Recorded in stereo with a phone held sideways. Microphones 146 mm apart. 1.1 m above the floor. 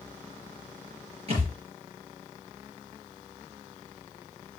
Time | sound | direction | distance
1.3 | a thud | 45° right (ahead or behind) | 5 m